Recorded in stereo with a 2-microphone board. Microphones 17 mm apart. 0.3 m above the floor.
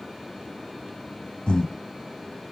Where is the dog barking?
I don't hear a dog barking.